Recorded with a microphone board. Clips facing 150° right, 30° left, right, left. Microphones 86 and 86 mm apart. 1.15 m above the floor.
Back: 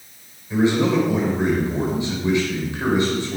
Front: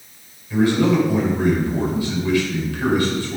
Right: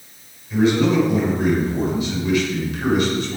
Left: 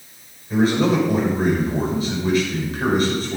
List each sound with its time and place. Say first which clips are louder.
0.5 s a man speaking: front 1 dB, right 1 dB; 140° left, 4.5 m